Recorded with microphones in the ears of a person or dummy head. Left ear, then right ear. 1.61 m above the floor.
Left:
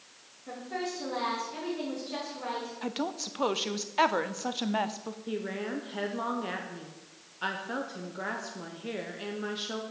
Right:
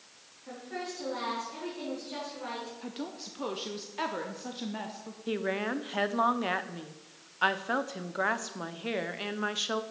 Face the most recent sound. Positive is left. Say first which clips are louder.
# right 4 dB
turn(degrees=-30)  # may be behind; listen again after turning